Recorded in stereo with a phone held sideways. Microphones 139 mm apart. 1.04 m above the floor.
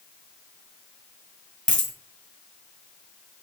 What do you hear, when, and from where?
1.7 s a dropped coin: 60° right (ahead or behind), 1.8 m